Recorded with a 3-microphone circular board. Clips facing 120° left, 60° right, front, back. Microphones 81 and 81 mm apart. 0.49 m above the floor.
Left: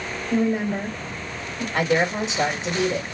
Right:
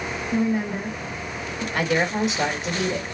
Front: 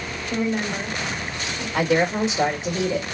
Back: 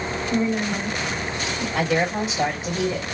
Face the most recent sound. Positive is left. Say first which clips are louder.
# left 1 dB, front 3 dB
turn(degrees=60)